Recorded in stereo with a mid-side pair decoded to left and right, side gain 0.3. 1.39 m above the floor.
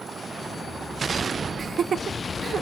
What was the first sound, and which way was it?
Laughter, 60° right.